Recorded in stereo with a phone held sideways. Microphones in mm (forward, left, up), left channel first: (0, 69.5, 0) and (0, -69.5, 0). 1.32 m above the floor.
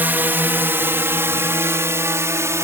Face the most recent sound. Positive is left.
turn(degrees=-20)  # may be behind; listen again after turning